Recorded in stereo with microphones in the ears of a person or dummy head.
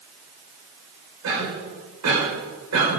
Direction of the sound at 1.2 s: 85° right.